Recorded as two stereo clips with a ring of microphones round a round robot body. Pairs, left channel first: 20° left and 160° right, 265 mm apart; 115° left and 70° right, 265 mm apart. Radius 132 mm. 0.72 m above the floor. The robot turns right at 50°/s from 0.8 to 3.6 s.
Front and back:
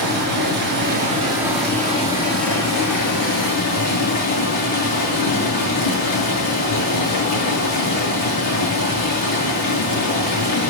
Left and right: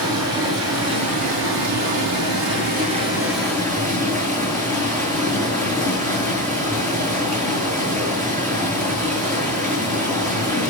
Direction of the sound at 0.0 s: 105° right.